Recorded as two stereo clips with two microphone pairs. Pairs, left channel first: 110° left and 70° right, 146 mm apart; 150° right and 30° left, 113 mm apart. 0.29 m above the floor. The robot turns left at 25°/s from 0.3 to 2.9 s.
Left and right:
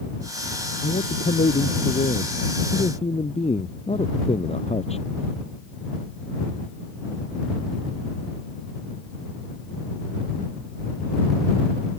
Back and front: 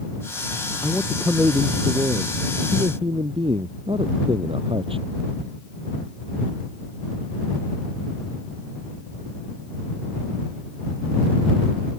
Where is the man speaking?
115° left; by 5.1 s 65° left.